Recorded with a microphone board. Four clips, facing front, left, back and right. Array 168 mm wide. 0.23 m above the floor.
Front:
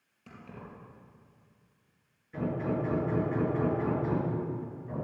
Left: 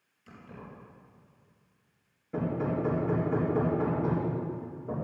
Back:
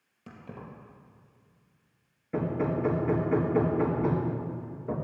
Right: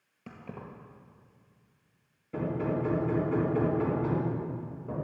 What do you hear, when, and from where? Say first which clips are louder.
0.3 s keys jangling: right 4 dB, back 3 dB; 115° right, 3.5 m
2.3 s hammering: even, back 3 dB; 170° left, 4 m